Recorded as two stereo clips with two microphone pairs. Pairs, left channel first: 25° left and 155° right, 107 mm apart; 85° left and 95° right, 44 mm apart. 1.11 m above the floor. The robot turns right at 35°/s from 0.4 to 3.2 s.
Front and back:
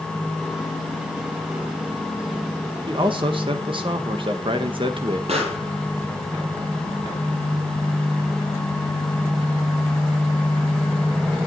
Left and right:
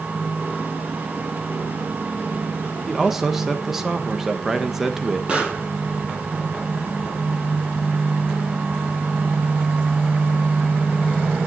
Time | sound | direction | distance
2.9 | a man speaking | 170° left | 1.3 m
5.3 | a pop | 160° right | 8.5 m